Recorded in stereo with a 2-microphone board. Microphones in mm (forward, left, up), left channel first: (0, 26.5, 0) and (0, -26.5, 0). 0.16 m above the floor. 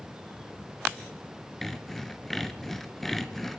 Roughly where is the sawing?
Centre.